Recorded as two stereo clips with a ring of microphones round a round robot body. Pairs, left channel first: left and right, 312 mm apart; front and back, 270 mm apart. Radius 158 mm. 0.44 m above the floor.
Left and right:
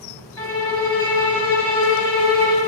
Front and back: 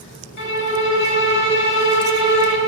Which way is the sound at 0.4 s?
10° left.